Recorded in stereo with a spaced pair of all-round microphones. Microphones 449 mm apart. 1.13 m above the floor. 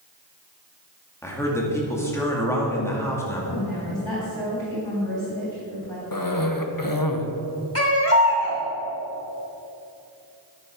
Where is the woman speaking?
85° left, 3 m.